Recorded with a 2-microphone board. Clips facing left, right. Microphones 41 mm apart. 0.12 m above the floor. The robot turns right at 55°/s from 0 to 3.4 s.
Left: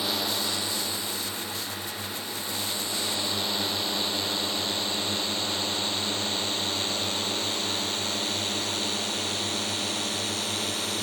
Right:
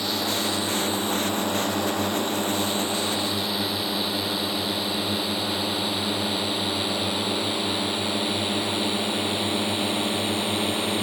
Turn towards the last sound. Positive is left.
turn(degrees=-25)  # may be behind; listen again after turning